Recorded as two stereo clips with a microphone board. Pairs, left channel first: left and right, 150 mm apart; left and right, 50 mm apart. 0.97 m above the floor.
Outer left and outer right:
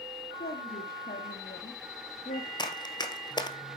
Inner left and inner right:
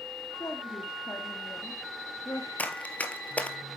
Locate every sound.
0.4 s a woman speaking: 75° left (ahead or behind), 2.5 m; by 2.5 s 60° left (ahead or behind), 1.1 m
2.6 s running footsteps: 30° left (ahead or behind), 1.0 m